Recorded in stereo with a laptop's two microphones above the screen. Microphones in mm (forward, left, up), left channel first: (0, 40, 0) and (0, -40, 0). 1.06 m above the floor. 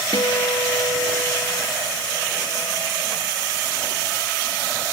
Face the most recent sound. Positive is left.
turn(degrees=60)  # may be behind; listen again after turning